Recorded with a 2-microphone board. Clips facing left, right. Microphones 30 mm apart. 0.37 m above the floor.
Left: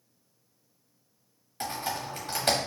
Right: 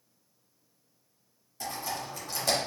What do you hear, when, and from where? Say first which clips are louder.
1.6 s typing on a keyboard: left 3 dB; 60° left (ahead or behind), 1.4 m